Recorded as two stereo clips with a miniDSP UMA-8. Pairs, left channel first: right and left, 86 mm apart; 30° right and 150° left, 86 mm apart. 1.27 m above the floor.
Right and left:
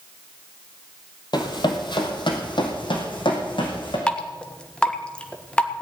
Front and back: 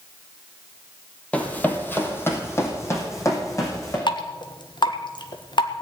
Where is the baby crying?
I don't hear a baby crying.